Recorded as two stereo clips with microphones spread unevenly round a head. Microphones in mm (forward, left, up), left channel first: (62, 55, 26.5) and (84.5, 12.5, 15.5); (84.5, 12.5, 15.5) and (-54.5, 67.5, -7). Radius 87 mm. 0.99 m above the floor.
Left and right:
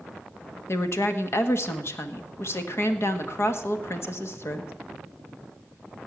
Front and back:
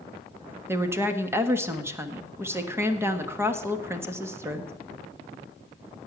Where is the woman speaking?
90° left, 1.5 m.